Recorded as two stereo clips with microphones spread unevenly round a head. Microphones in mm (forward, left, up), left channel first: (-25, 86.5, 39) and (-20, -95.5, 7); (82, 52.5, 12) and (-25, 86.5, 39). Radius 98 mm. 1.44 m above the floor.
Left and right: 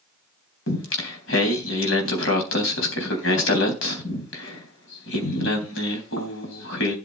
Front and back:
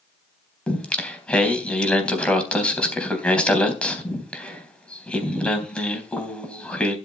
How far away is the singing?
About 3.5 m.